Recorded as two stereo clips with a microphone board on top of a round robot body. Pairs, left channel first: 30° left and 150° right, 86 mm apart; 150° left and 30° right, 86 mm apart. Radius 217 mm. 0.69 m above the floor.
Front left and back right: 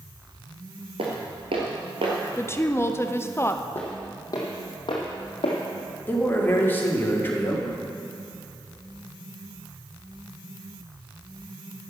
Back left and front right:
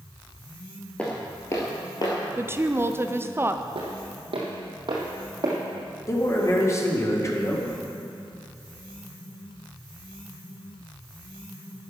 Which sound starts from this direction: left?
A man speaking, at 6.1 s.